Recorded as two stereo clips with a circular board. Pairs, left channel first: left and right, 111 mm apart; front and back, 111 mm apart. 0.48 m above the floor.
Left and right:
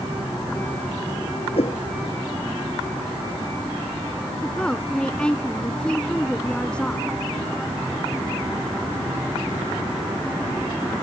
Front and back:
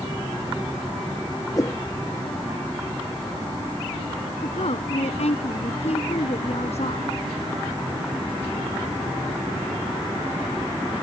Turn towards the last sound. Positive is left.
turn(degrees=10)